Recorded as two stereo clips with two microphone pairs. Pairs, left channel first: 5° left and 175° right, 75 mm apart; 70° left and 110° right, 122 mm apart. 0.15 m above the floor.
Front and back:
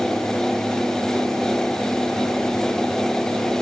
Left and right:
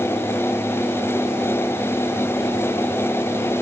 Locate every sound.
Only background noise.